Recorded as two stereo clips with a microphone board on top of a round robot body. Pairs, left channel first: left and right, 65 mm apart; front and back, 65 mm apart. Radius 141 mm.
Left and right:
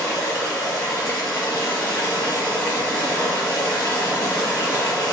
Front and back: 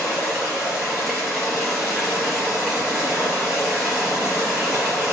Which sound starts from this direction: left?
Running water, at 0.0 s.